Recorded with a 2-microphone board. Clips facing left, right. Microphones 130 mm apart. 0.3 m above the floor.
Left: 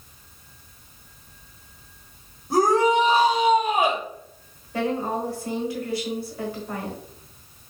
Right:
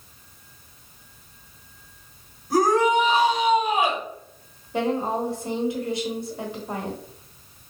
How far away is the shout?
About 1.4 m.